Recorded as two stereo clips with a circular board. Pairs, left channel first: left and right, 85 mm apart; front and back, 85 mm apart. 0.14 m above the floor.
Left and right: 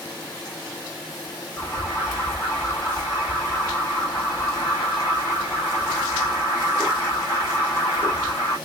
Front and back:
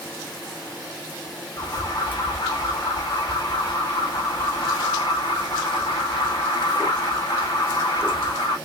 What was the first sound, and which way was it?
An alarm, 25° left.